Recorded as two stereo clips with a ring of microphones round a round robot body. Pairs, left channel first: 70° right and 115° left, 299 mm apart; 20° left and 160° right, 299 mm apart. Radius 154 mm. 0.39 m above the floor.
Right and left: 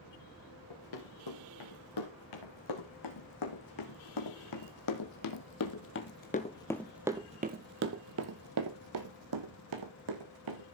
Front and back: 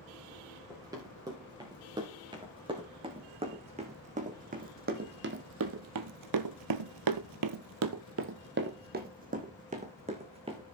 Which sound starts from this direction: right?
Running footsteps, at 0.7 s.